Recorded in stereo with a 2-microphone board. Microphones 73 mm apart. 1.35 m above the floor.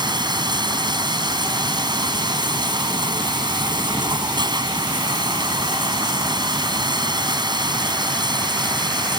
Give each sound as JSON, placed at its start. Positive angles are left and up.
{"t": 0.0, "sound": "running water", "side_deg": -85}